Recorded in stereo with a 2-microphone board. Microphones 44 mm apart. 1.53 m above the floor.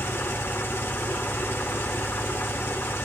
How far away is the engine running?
About 1.3 m.